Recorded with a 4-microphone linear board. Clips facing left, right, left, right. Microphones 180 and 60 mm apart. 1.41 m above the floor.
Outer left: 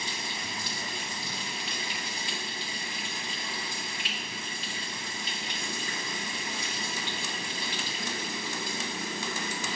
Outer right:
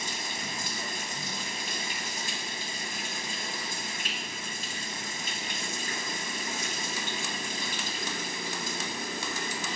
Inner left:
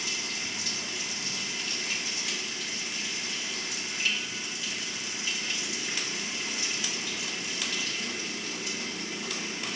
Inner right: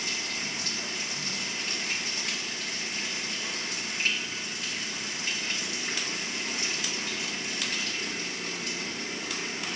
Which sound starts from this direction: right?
Running water, at 0.0 s.